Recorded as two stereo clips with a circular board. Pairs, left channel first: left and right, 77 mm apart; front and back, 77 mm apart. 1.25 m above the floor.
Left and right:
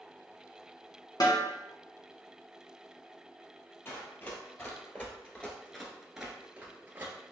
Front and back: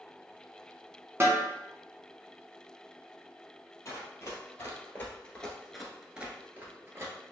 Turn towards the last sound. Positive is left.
turn(degrees=-145)